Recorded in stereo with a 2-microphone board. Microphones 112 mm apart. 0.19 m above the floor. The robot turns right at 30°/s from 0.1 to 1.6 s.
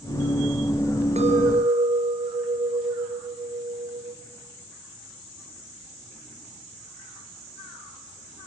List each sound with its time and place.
1.2 s a clink: 65° right (ahead or behind), 2.5 m; by 4.2 s 60° right (ahead or behind), 2.5 m